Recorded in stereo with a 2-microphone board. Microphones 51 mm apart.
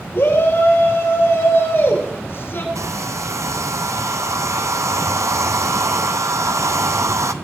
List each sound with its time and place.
0.1 s a shout: 50° left (ahead or behind), 8 m
2.8 s a hair dryer: 80° right, 1.2 m